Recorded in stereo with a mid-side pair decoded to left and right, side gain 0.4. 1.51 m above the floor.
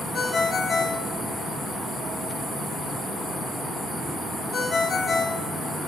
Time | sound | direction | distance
0.1 | a ringtone | 60° left | 2 m